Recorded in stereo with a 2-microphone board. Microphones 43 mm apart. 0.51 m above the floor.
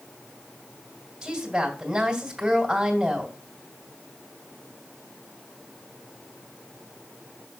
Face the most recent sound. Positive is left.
turn(degrees=-15)  # may be behind; listen again after turning